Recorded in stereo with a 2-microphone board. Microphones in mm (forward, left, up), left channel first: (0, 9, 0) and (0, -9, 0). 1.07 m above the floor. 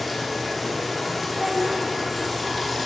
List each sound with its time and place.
0.0 s running water: centre (ahead or behind), 0.8 m
1.3 s a child speaking: 60° right (ahead or behind), 0.7 m